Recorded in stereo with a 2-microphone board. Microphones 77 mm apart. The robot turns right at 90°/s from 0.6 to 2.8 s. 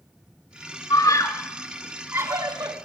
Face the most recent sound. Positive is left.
turn(degrees=-75)  # may be behind; listen again after turning